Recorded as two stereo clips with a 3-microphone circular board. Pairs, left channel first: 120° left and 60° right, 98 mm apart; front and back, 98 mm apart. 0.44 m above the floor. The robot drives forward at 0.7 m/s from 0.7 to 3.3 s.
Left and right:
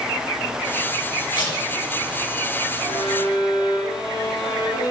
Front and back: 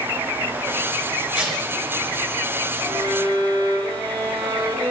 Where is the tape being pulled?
100° left, 2 m; by 1.6 s 105° left, 2 m.